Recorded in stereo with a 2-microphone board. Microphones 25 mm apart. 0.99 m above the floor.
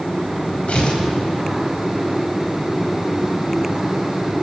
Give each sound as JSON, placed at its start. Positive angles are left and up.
{"t": 0.7, "sound": "tearing paper", "side_deg": 55, "distance_m": 4.5}